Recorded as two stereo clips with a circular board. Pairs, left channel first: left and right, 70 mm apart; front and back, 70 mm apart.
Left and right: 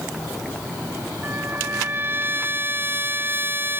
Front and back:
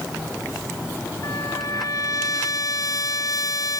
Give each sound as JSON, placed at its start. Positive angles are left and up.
{"t": 1.2, "sound": "a trumpet", "azimuth_deg": -30}